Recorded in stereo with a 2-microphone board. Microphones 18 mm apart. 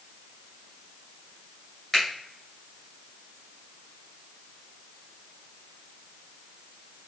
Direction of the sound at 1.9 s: 10° left (ahead or behind).